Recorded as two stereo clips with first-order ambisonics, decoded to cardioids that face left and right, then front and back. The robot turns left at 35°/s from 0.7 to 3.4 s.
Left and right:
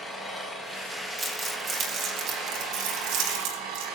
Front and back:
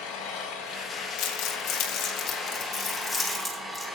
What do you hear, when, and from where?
0.0 s an engine running: 10° right, 5.5 m; by 4.0 s 105° right, 5.5 m
1.2 s crumpling: 20° right, 3 m; by 3.9 s 95° right, 3 m